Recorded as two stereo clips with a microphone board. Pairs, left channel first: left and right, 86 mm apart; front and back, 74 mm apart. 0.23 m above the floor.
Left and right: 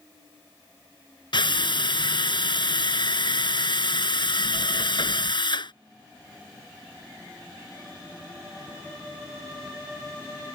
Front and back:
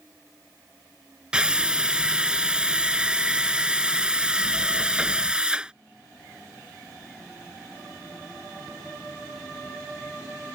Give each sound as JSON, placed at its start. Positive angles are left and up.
{"t": 1.3, "sound": "a drill", "azimuth_deg": 105}